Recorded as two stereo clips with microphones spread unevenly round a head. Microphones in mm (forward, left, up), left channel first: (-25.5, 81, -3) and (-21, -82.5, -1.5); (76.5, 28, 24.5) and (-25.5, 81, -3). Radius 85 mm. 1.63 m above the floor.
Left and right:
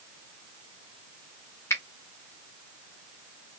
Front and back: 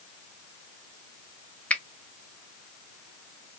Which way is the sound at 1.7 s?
25° left.